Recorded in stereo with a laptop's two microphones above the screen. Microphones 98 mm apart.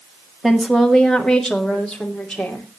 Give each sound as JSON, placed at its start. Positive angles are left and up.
{"t": 0.4, "sound": "a woman speaking", "side_deg": -5, "distance_m": 1.4}